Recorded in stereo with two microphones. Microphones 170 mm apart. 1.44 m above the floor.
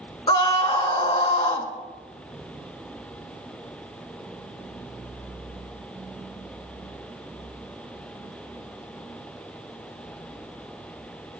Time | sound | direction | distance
0.3 | a scream | 35° left (ahead or behind) | 1.4 m